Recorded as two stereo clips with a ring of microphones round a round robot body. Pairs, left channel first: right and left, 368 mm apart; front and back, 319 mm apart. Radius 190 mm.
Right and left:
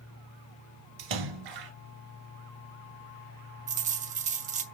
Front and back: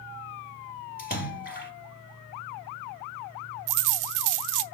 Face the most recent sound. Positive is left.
turn(degrees=160)